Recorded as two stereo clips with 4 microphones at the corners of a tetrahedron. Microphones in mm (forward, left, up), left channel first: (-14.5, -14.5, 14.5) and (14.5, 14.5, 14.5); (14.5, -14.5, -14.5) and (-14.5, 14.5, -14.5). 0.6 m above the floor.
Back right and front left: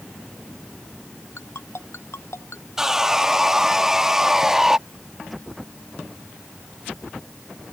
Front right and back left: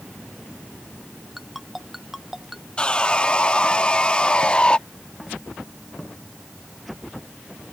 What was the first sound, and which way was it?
A ringtone, 140° right.